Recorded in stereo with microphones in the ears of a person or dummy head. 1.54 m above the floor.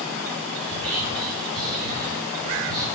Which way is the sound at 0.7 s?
Centre (ahead or behind).